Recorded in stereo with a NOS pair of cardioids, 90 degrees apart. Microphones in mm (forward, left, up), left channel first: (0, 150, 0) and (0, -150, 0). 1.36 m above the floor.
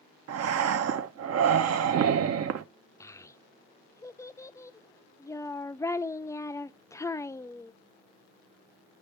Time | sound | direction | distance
0.3 | breathing | 55° right | 0.8 m
3.0 | a child speaking | 10° left | 0.6 m